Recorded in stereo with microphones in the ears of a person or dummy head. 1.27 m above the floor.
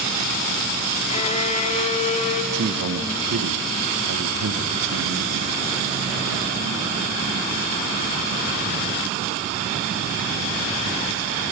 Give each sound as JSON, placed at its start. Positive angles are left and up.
{"t": 1.1, "sound": "a violin", "side_deg": 30, "distance_m": 1.1}
{"t": 2.5, "sound": "a man speaking", "side_deg": -65, "distance_m": 1.1}